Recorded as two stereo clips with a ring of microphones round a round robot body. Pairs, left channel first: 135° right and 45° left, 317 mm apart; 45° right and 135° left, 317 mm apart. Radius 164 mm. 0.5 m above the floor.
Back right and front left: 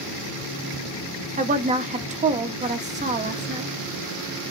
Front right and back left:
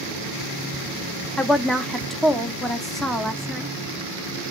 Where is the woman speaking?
45° left, 0.9 m.